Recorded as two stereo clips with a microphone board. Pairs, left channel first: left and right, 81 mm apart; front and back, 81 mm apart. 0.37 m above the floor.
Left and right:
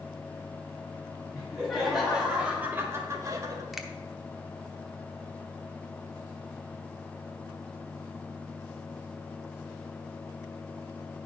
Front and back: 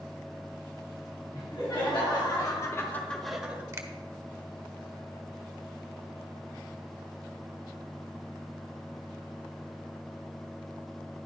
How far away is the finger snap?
About 0.9 m.